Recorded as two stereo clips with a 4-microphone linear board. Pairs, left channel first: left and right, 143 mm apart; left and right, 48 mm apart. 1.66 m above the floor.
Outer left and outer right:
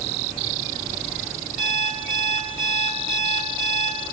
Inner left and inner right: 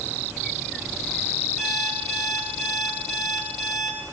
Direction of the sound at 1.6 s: Centre (ahead or behind).